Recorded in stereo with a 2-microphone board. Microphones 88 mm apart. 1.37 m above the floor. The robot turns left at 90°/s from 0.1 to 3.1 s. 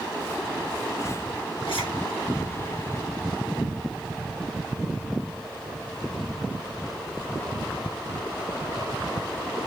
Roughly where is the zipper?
Left.